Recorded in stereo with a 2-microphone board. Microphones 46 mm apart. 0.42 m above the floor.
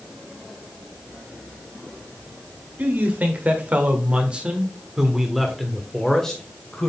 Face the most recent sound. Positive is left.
turn(degrees=15)  # may be behind; listen again after turning